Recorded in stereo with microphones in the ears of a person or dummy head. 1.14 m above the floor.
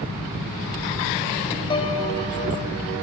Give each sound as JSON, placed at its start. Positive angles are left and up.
{"t": 1.7, "sound": "a piano", "side_deg": 25, "distance_m": 1.4}